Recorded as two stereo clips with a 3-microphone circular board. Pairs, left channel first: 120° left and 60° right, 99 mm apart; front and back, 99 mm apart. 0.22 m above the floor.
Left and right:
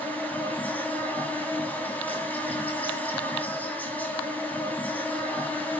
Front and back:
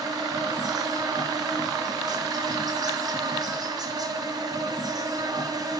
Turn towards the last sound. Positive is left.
turn(degrees=-175)